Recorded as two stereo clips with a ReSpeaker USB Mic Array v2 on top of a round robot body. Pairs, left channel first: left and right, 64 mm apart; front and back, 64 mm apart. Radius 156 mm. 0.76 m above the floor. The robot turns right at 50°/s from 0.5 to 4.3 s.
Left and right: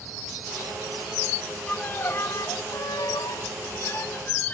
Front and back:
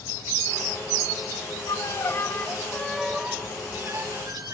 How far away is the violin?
About 1.4 m.